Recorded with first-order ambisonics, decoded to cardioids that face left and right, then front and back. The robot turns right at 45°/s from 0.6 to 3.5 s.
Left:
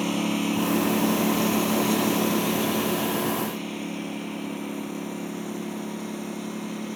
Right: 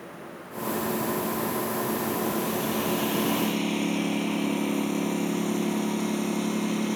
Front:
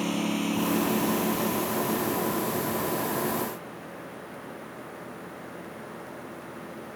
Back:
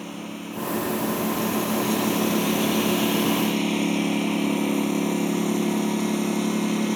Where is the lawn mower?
70° left; by 7.0 s 160° right.